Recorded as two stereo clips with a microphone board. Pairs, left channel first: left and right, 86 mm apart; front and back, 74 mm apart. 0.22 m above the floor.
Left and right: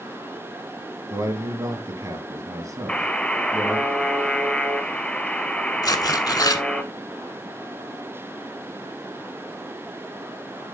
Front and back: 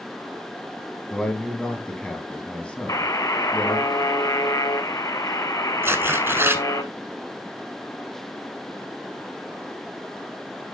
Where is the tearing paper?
125° left, 0.8 m.